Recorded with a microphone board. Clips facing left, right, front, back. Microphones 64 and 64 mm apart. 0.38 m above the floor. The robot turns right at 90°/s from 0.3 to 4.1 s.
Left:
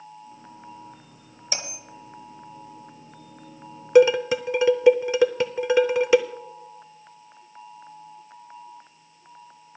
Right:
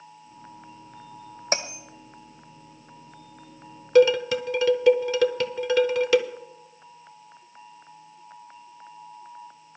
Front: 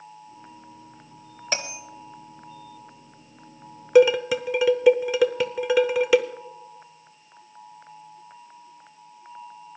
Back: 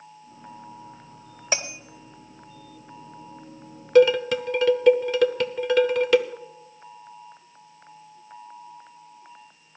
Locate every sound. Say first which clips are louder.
1.5 s a bell: right 6 dB, back 1 dB; 100° right, 1.0 m; by 1.8 s 75° right, 1.0 m
4.0 s dishes clattering: left 2 dB, even; 55° left, 0.6 m; by 6.2 s 65° left, 0.6 m